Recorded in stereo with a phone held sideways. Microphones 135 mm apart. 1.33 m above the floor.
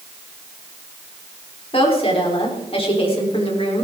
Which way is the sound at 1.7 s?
45° left (ahead or behind).